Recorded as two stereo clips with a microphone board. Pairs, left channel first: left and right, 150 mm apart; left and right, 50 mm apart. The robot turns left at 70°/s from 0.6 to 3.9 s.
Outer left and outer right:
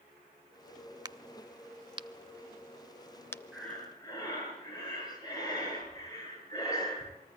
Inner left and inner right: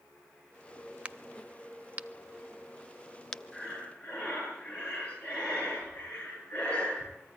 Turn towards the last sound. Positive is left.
turn(degrees=25)  # may be behind; listen again after turning